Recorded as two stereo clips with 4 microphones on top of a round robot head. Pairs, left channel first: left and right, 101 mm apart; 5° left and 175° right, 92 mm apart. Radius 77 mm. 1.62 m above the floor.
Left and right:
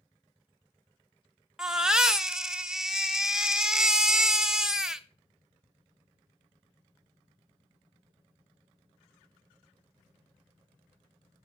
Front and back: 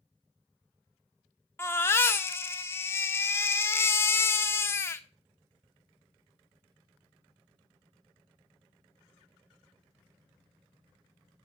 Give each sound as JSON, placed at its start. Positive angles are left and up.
{"t": 1.6, "sound": "a baby crying", "azimuth_deg": -20, "distance_m": 0.6}